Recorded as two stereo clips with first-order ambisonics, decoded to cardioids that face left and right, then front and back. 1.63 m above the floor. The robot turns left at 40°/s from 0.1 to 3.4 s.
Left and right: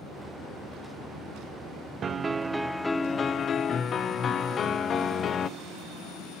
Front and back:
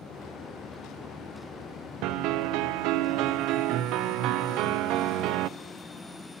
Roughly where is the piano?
Behind right.